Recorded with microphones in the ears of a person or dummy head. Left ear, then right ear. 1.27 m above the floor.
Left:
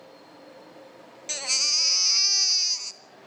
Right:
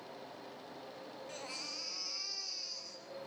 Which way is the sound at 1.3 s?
55° left (ahead or behind).